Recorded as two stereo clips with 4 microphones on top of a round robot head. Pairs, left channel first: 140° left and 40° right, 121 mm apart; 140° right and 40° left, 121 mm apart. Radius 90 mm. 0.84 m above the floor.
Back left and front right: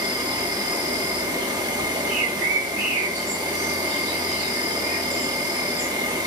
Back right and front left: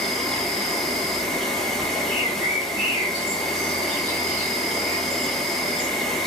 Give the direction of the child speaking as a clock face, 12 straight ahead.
I don't hear a child speaking.